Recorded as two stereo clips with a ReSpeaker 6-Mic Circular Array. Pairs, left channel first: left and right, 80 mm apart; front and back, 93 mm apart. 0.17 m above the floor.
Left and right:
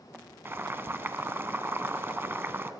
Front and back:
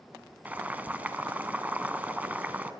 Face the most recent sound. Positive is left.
turn(degrees=-125)